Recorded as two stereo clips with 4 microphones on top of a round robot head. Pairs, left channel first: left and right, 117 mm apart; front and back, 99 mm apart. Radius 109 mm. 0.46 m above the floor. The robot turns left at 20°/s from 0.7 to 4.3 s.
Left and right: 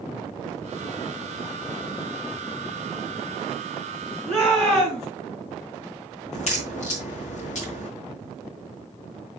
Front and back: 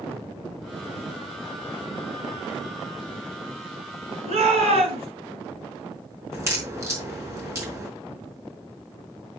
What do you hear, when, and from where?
4.3 s a shout: 175° left, 6.5 m
6.3 s a crack: 120° left, 4.5 m